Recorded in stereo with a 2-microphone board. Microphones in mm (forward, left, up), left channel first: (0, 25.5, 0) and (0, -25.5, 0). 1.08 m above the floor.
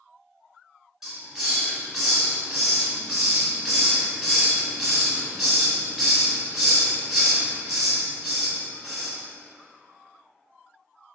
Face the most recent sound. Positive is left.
turn(degrees=0)  # may be behind; listen again after turning